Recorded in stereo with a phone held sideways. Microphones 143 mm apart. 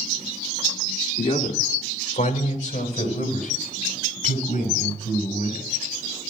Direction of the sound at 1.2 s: 40° left (ahead or behind).